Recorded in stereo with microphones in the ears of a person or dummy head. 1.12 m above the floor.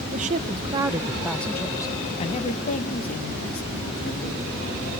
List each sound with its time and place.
0.1 s a woman speaking: 40° right (ahead or behind), 1.3 m; by 5.0 s 60° left (ahead or behind), 3 m